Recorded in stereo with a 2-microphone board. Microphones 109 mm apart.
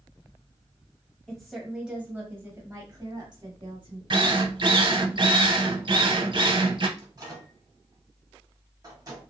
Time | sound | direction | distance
1.3 | a woman speaking | 5° left (ahead or behind) | 1.3 m
4.1 | a drill | 45° right (ahead or behind) | 0.5 m
7.0 | a microwave | 35° right (ahead or behind) | 1.2 m